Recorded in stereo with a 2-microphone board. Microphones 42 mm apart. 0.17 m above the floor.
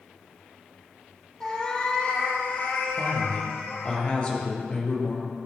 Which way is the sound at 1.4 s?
15° left (ahead or behind).